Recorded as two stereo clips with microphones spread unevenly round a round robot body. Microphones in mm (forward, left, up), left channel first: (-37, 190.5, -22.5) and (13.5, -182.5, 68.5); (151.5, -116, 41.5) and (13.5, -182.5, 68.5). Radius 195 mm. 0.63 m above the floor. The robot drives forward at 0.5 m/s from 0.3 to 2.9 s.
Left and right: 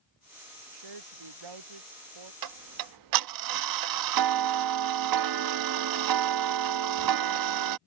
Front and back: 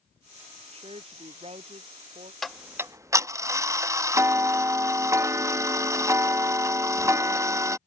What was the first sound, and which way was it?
A woman speaking, 105° right.